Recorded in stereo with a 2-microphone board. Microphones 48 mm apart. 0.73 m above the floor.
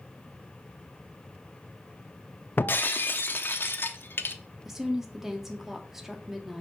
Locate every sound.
2.6 s breaking glass: 50° left (ahead or behind), 0.6 m
4.7 s a woman speaking: 5° right (ahead or behind), 1.3 m